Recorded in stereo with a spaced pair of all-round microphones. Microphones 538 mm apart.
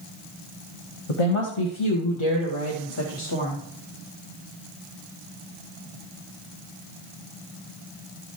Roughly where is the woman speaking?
Left.